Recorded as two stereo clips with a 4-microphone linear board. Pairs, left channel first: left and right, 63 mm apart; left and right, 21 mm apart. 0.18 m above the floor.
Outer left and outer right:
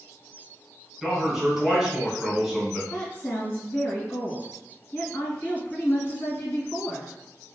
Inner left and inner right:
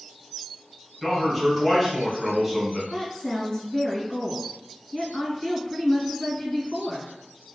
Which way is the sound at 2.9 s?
35° left (ahead or behind).